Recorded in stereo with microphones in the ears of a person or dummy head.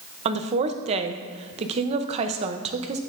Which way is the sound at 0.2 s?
35° right (ahead or behind).